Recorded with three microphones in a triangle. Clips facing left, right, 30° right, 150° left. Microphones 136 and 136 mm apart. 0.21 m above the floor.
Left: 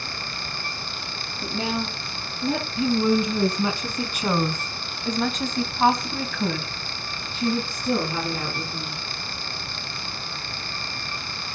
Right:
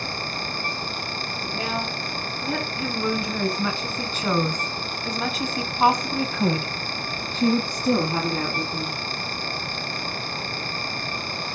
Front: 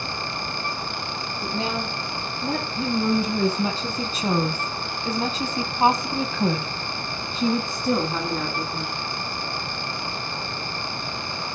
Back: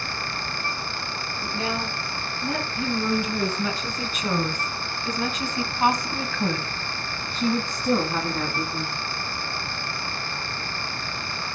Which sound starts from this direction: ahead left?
A woman speaking, at 1.4 s.